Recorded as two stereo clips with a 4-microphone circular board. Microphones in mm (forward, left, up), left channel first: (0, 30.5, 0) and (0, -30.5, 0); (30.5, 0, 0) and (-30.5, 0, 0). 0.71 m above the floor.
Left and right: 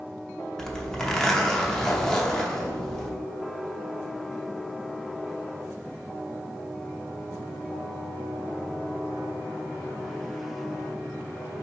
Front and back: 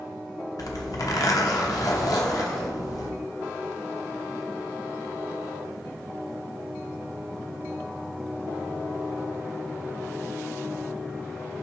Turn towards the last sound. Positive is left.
turn(degrees=10)